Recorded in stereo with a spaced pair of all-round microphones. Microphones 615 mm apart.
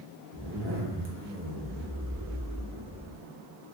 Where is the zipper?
20° right (ahead or behind), 0.7 m.